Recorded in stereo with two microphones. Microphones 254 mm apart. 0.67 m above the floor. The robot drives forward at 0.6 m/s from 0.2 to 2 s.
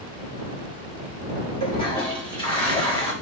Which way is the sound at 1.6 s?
20° left (ahead or behind).